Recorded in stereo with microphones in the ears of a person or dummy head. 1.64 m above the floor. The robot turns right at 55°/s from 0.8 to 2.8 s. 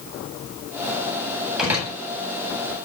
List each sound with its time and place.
1.6 s a door slam: centre (ahead or behind), 9.5 m; by 1.9 s 15° right (ahead or behind), 9.5 m